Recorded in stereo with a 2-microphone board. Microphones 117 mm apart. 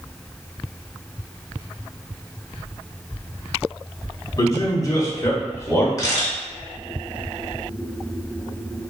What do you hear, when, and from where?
4.4 s a man speaking: 30° left (ahead or behind), 1.8 m; by 5.9 s 25° left (ahead or behind), 1.4 m
6.0 s a camera shutter: 30° left (ahead or behind), 1.1 m